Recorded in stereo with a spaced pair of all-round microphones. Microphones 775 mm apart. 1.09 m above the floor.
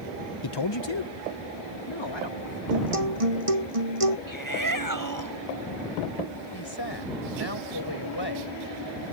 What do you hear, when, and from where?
0.4 s a man speaking: 30° left (ahead or behind); by 2.6 s 35° left (ahead or behind)
2.7 s a guitar: 45° right (ahead or behind)
4.3 s a shout: 25° right (ahead or behind)
6.5 s a woman speaking: 30° left (ahead or behind)